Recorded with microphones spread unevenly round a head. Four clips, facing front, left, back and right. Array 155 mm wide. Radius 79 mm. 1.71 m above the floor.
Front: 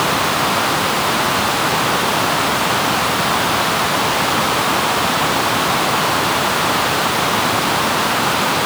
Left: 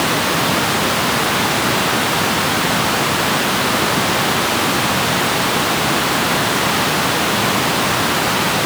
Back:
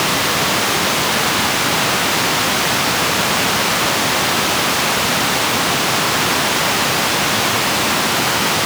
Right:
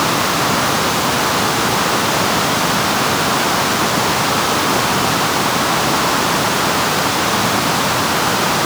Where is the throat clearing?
I don't hear throat clearing.